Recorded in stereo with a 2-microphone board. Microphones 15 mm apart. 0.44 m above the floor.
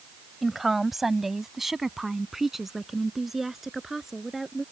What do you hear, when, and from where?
0.4 s a woman speaking: 5° right (ahead or behind); by 4.6 s 10° right (ahead or behind)